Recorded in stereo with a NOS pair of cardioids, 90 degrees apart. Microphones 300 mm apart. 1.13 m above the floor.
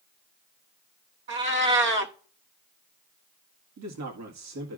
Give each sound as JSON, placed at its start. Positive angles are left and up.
{"t": 1.3, "sound": "a cat meowing", "azimuth_deg": -40, "distance_m": 1.4}
{"t": 3.8, "sound": "a man speaking", "azimuth_deg": -65, "distance_m": 2.0}